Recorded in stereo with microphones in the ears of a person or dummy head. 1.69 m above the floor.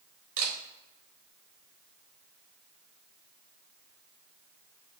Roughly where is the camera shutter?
Right.